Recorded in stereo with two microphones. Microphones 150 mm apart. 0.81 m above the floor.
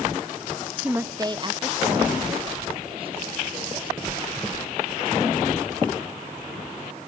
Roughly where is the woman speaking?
Centre.